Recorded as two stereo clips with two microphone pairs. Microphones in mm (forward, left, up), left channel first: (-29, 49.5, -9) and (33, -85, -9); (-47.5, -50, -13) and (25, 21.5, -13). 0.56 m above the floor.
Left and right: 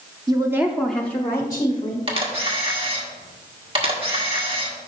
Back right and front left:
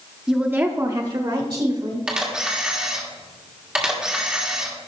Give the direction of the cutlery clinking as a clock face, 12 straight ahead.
No cutlery clinking in this recording.